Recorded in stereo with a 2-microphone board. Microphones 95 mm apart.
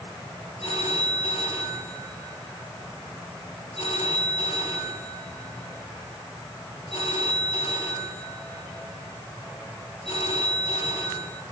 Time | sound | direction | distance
0.6 | a phone ringing | 70° left (ahead or behind) | 5.5 m